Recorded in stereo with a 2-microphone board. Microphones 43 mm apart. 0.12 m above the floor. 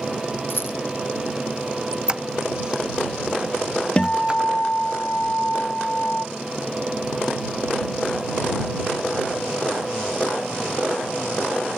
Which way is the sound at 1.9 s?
20° right (ahead or behind).